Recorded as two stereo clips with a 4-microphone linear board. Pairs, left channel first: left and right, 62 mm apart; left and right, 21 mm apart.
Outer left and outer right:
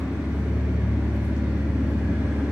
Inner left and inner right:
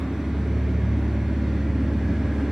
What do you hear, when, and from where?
0.0 s an engine running: 15° right (ahead or behind), 2.5 m